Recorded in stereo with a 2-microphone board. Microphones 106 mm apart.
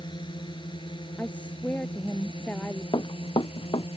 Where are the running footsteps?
50° left (ahead or behind).